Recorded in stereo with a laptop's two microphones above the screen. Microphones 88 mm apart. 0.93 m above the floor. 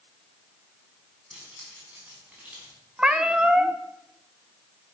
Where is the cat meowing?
10° right (ahead or behind), 0.6 m.